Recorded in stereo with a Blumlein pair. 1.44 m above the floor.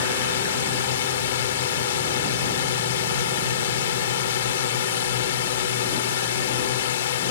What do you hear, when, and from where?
0.0 s a drone: 60° left